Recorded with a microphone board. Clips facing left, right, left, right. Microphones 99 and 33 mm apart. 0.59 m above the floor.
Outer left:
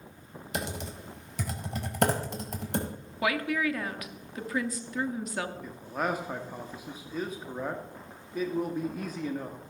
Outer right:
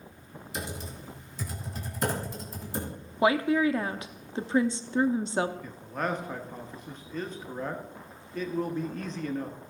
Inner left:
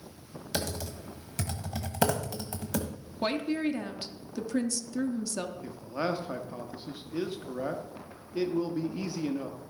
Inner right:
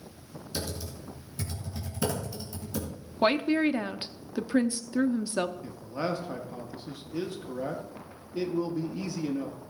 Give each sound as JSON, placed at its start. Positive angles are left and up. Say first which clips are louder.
{"t": 0.5, "sound": "typing on a keyboard", "louder": "outer left 3 dB, inner left 3 dB", "side_deg": 75, "distance_m": 1.7}
{"t": 3.2, "sound": "a woman speaking", "louder": "outer right 5 dB, inner right 5 dB", "side_deg": -25, "distance_m": 0.6}
{"t": 5.6, "sound": "a man speaking", "louder": "outer left 1 dB, inner left 1 dB", "side_deg": 10, "distance_m": 0.9}